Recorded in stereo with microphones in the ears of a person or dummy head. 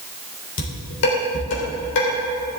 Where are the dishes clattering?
65° left (ahead or behind), 4 m.